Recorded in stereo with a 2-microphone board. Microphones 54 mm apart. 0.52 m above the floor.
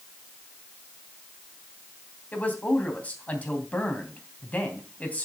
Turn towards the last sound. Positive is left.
turn(degrees=30)  # may be behind; listen again after turning